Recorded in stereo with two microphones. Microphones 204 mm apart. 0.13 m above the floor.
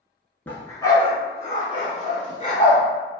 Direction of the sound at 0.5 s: 10° left (ahead or behind).